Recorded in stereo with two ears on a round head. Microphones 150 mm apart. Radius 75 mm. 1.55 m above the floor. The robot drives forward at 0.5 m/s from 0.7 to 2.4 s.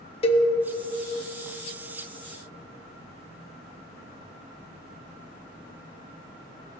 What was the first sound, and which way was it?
A cowbell, 35° left (ahead or behind).